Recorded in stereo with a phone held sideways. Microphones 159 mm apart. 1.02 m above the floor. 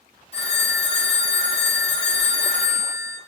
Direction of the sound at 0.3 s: 40° left (ahead or behind).